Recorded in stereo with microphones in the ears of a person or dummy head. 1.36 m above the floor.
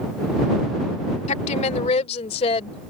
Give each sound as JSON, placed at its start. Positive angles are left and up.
{"t": 1.3, "sound": "a woman speaking", "side_deg": 35}